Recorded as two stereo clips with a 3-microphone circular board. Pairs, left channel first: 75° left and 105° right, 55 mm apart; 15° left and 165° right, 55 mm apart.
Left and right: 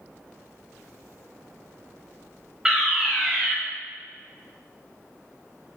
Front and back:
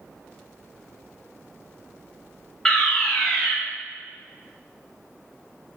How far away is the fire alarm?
About 2.0 m.